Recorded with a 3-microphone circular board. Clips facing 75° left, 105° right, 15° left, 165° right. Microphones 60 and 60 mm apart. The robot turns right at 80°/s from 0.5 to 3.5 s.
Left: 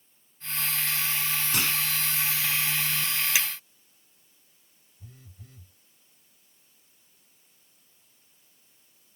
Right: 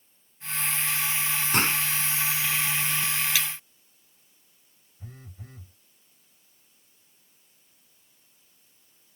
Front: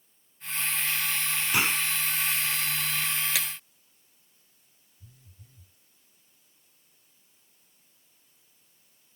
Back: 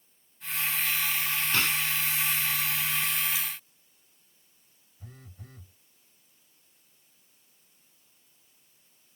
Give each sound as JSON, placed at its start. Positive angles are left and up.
{"t": 1.5, "sound": "a gunshot", "azimuth_deg": -60}
{"t": 3.4, "sound": "breaking glass", "azimuth_deg": 0}
{"t": 5.0, "sound": "a phone buzzing", "azimuth_deg": -150}